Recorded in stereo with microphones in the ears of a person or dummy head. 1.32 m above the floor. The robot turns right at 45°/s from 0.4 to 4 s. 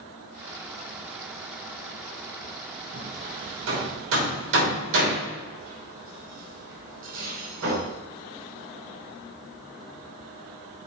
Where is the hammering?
45° right (ahead or behind), 3 m; by 7.8 s 80° right, 3 m.